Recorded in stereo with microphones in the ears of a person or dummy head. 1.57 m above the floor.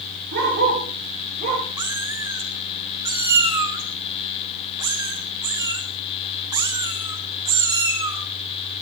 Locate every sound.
0.3 s a dog barking: 55° right (ahead or behind), 8 m; by 1.6 s 45° right (ahead or behind), 8.5 m
1.8 s a cat meowing: 15° right (ahead or behind), 1.9 m